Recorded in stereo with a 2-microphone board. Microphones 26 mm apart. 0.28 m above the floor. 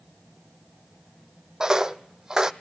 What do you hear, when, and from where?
1.6 s footsteps: 25° right (ahead or behind), 0.5 m